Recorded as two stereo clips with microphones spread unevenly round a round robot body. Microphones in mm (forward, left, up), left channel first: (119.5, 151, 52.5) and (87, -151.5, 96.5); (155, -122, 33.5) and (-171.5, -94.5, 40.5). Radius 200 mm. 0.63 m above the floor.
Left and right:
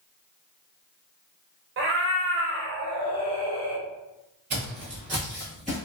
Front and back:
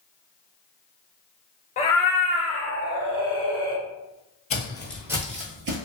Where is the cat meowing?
65° right, 0.5 m; by 3.8 s 170° right, 1.4 m.